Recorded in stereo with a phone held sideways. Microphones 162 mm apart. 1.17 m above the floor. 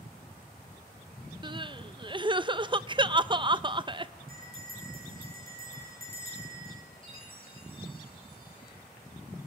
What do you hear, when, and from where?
1.4 s crying: 30° right (ahead or behind), 0.6 m
4.3 s a bell: 60° right (ahead or behind), 9 m
7.0 s a chime: 35° left (ahead or behind), 6.5 m